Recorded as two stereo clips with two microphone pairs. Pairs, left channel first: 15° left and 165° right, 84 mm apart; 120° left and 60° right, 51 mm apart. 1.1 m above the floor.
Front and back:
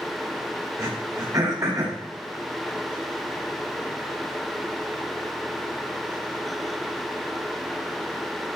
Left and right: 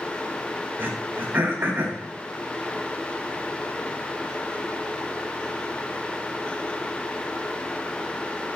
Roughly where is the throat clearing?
Behind right.